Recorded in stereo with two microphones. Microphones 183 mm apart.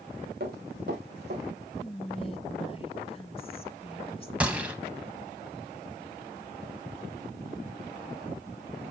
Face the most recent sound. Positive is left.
turn(degrees=-5)  # may be behind; listen again after turning